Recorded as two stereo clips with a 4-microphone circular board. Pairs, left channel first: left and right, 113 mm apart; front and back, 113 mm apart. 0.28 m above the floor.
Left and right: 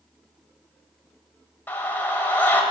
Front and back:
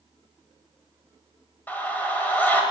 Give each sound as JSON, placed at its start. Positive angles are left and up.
{"t": 1.7, "sound": "a scream", "azimuth_deg": 45, "distance_m": 1.4}